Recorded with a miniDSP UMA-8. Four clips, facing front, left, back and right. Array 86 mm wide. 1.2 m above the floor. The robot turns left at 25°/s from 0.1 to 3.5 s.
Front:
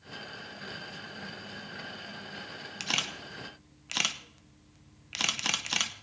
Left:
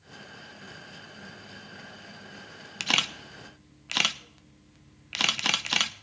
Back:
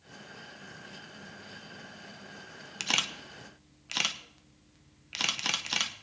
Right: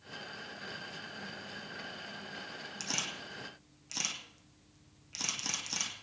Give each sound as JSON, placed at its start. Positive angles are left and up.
{"t": 2.8, "sound": "a camera shutter", "azimuth_deg": 100, "distance_m": 0.8}